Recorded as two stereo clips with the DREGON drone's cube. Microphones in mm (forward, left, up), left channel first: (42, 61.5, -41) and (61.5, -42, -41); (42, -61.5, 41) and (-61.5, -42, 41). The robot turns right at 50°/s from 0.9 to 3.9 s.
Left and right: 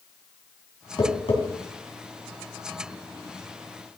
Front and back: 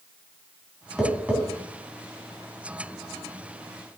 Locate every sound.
1.0 s tapping: 80° left, 2.5 m; by 1.4 s 100° left, 2.5 m